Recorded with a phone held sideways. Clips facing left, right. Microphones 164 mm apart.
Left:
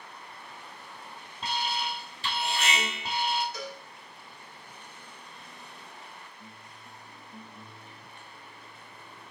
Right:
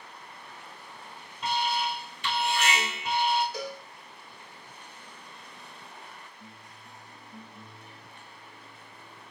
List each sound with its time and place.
1.4 s an alarm: 30° left (ahead or behind), 2 m
3.5 s a cowbell: 35° right (ahead or behind), 2 m